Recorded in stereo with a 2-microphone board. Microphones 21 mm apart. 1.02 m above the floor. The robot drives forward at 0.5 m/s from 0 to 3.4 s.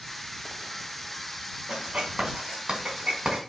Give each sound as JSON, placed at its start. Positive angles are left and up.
{"t": 1.7, "sound": "writing", "side_deg": -40, "distance_m": 3.0}